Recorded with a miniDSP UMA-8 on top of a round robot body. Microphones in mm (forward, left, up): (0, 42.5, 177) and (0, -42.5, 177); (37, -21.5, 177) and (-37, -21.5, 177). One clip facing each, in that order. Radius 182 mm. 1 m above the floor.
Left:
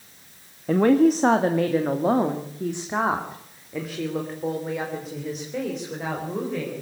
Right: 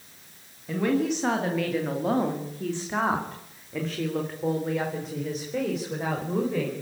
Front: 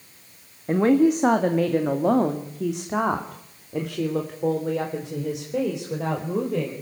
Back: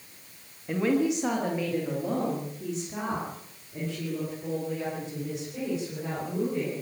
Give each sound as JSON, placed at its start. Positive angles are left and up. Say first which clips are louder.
{"t": 0.7, "sound": "a woman speaking", "louder": "left 8 dB, front 7 dB", "azimuth_deg": 50, "distance_m": 1.8}